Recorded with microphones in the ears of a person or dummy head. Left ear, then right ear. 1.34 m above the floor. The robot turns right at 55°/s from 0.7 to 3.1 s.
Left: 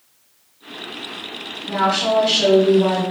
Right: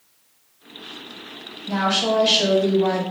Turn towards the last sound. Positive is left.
turn(degrees=-10)